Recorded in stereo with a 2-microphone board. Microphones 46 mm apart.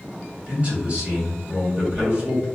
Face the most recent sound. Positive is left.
turn(degrees=-30)  # may be behind; listen again after turning